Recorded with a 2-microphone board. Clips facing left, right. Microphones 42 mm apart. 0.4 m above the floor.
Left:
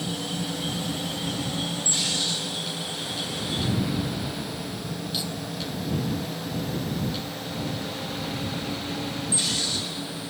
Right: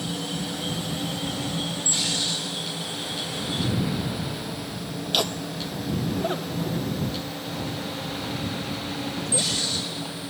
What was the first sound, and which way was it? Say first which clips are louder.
Laughter: right 5 dB; 65° right (ahead or behind).